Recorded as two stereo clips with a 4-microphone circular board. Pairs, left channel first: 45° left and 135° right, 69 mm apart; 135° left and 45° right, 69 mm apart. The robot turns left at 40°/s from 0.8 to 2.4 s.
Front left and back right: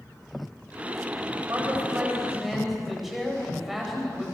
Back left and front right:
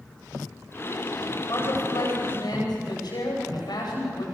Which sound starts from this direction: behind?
A man speaking, at 1.5 s.